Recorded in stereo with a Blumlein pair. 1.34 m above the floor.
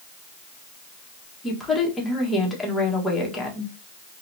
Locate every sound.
1.4 s a woman speaking: 10° left, 1.7 m